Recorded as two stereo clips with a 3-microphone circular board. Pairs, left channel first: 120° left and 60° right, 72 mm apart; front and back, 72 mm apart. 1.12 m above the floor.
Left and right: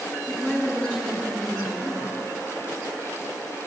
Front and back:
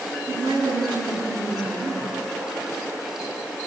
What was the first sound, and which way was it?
A woman speaking, 165° right.